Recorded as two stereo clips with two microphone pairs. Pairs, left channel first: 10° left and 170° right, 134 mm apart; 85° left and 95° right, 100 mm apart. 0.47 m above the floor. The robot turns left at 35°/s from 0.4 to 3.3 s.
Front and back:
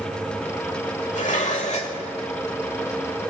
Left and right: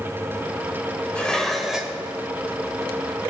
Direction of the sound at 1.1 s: 10° left.